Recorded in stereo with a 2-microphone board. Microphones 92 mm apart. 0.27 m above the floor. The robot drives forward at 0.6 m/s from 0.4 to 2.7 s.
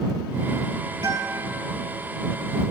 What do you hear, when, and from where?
1.0 s a guitar: 60° right (ahead or behind), 4 m; by 1.5 s 65° right (ahead or behind), 3.5 m